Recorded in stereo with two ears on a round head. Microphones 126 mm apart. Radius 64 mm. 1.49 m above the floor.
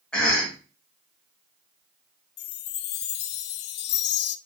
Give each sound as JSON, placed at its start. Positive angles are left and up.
{"t": 0.1, "sound": "a cough", "side_deg": 5, "distance_m": 2.5}
{"t": 2.4, "sound": "a chime", "side_deg": 80, "distance_m": 0.5}